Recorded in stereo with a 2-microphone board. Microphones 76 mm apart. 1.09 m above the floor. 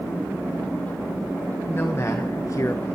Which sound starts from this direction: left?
A man speaking, at 1.7 s.